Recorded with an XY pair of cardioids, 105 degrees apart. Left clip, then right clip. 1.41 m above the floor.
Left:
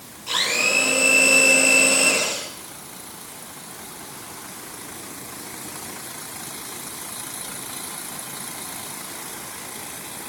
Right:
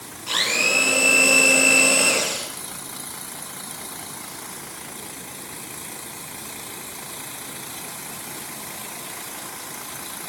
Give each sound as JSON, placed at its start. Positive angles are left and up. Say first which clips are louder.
{"t": 0.3, "sound": "a blender", "louder": "even", "azimuth_deg": -20, "distance_m": 9.5}